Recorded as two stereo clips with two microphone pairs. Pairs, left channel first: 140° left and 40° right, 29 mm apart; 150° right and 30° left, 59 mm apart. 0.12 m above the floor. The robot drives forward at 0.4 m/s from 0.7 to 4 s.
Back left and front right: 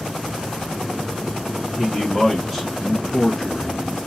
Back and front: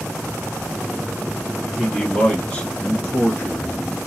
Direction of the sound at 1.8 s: 95° right.